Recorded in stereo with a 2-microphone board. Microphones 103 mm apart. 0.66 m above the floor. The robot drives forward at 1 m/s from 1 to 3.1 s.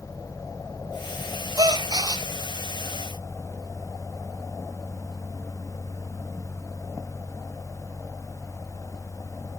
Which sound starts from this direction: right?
A gasp, at 1.6 s.